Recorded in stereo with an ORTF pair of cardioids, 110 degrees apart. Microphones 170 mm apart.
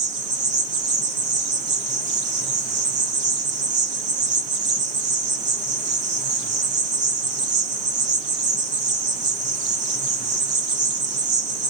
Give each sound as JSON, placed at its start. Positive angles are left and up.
{"t": 0.0, "sound": "an insect", "azimuth_deg": -45, "distance_m": 0.9}